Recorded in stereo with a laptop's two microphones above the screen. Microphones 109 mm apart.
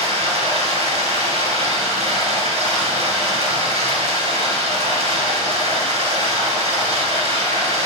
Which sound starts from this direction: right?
Running water, at 0.0 s.